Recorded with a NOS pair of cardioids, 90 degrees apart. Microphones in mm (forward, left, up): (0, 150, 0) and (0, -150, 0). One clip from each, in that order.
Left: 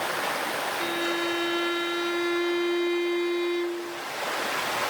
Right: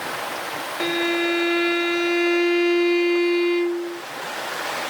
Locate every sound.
0.8 s a violin: 45° right